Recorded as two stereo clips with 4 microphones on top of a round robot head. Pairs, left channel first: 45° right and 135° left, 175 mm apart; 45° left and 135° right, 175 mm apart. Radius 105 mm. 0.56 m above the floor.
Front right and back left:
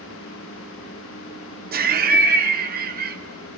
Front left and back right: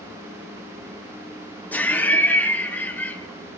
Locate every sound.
1.7 s laughter: 125° left, 1.2 m